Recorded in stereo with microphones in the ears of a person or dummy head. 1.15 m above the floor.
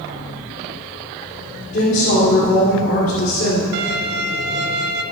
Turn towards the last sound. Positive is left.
turn(degrees=-60)  # may be behind; listen again after turning